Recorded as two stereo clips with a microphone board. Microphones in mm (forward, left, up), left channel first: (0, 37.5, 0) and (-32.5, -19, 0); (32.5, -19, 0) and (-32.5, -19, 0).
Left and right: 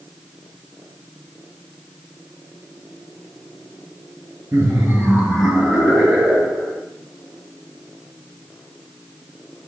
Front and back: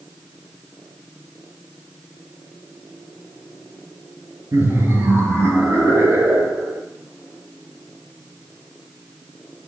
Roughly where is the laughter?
Behind.